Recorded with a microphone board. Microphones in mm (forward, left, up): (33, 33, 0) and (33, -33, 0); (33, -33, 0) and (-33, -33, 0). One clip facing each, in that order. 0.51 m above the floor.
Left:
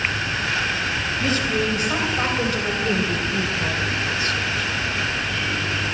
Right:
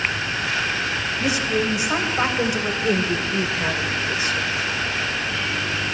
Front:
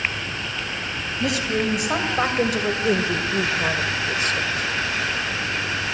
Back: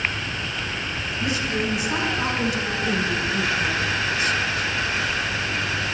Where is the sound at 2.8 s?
20° right, 1.8 m.